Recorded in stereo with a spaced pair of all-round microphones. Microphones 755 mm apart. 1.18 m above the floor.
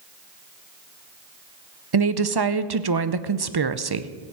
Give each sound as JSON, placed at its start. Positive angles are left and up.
{"t": 1.9, "sound": "a woman speaking", "side_deg": -35, "distance_m": 0.7}